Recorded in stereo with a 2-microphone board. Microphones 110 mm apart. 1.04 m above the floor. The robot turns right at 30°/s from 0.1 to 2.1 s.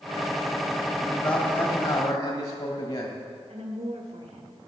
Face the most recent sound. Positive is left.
turn(degrees=-75)  # may be behind; listen again after turning